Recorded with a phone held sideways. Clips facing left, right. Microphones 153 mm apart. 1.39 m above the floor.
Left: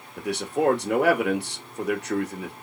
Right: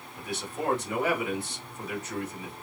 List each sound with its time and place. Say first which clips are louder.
0.2 s a man speaking: left 9 dB; 70° left (ahead or behind), 2.5 m